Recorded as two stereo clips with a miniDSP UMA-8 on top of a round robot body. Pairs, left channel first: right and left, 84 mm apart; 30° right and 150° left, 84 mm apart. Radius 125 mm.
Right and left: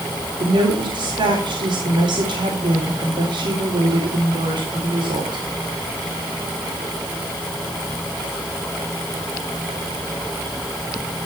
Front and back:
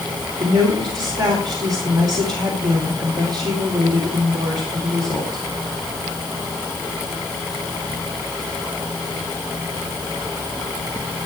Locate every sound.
0.4 s a woman speaking: 115° left, 4 m